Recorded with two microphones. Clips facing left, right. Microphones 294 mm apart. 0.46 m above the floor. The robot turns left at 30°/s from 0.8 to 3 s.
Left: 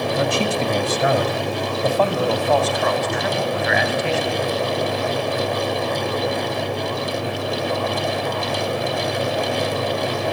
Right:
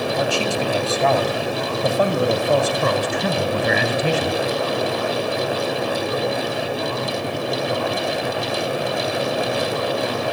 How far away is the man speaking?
About 3 m.